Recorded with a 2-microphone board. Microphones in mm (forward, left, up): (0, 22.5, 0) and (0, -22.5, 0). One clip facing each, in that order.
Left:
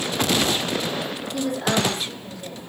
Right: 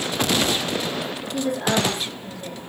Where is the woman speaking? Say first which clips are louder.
Right 1 dB; 35° right (ahead or behind), 3 m.